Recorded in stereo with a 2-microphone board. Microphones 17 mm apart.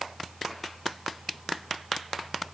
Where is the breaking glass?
I don't hear breaking glass.